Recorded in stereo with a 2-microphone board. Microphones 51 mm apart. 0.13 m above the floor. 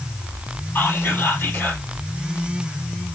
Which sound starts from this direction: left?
Whispering, at 0.8 s.